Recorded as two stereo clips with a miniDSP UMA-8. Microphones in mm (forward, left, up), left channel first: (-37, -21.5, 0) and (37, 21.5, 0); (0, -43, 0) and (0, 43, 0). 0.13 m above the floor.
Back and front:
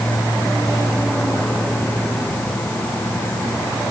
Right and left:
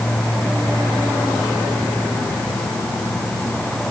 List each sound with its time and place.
Only background noise.